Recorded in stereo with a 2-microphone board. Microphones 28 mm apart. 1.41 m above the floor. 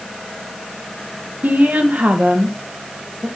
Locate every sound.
1.4 s a woman speaking: 75° right (ahead or behind), 1.6 m